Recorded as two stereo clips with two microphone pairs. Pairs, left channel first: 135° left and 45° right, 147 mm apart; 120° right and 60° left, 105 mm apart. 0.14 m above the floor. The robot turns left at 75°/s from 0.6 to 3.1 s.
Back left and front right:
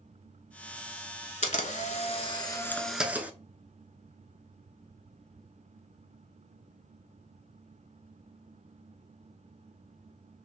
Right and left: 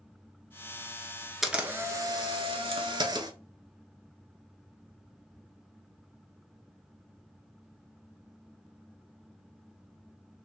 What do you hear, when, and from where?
1.4 s a camera shutter: 150° left, 0.8 m; by 3.3 s 25° left, 0.8 m